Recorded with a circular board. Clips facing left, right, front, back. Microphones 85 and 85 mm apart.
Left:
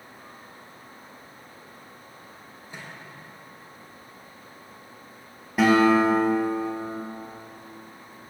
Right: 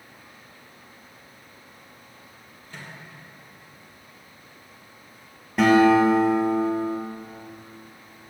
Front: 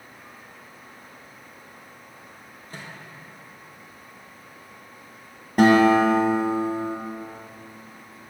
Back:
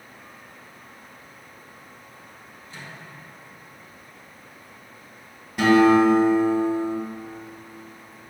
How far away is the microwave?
About 3 m.